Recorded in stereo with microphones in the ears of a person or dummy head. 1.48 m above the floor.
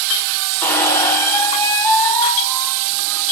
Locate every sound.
0.6 s a squeak: 15° left (ahead or behind), 0.8 m